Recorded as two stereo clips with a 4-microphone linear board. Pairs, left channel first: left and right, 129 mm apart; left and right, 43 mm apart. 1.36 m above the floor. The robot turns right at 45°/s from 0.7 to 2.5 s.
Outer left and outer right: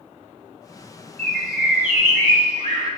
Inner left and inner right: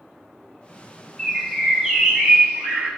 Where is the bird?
170° left, 1.4 m; by 2.9 s 130° right, 1.4 m.